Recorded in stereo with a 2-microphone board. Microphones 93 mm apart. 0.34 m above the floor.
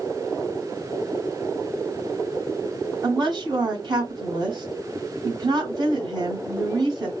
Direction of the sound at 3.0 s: 50° right (ahead or behind).